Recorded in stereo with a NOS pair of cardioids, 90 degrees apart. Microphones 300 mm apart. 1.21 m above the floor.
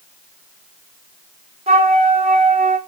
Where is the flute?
20° right, 0.9 m.